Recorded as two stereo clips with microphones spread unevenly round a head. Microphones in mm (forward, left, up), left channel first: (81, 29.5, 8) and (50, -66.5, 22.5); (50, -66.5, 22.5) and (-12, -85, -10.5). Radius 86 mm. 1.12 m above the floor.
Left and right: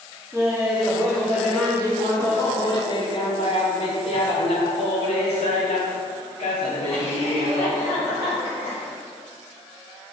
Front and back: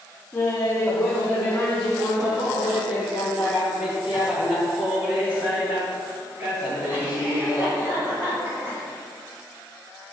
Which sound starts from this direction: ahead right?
Laughter, at 0.3 s.